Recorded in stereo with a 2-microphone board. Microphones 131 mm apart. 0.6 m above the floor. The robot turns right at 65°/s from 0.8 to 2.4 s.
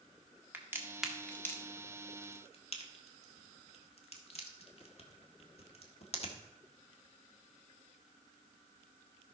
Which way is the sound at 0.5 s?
15° right (ahead or behind).